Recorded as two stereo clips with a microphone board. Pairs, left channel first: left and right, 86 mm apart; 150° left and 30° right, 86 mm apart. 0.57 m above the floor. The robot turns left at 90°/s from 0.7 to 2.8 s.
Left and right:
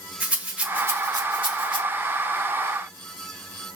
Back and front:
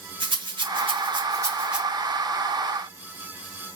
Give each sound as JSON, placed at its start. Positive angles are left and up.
{"t": 0.2, "sound": "a rattle", "azimuth_deg": -15, "distance_m": 1.0}